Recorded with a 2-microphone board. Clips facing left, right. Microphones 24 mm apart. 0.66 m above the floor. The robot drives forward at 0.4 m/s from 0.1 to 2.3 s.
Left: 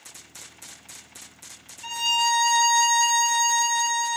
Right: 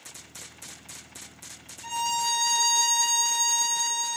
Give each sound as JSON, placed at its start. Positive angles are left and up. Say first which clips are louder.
{"t": 1.8, "sound": "a violin", "louder": "left 5 dB", "side_deg": 30, "distance_m": 0.8}